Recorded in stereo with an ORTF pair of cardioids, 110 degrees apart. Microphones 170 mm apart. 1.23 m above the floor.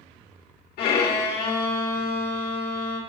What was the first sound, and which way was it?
A violin, 70° left.